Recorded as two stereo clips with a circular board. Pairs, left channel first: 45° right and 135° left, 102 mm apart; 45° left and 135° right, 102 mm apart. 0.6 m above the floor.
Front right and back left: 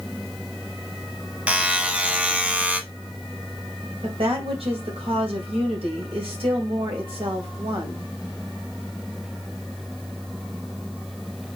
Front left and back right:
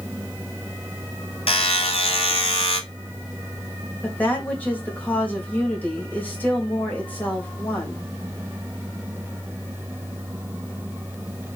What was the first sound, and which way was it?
A buzzer, 60° left.